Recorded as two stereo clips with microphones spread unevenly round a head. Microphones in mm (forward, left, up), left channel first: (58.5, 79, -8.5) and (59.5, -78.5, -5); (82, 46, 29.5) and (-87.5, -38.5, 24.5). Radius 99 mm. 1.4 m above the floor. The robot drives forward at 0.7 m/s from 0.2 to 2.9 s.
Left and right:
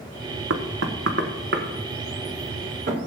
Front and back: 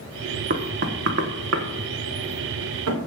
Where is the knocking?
105° right, 1.2 m; by 3.1 s 150° right, 2.5 m.